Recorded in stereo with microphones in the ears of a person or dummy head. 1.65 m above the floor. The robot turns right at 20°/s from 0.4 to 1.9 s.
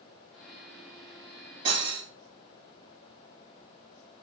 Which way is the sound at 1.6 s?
40° right (ahead or behind).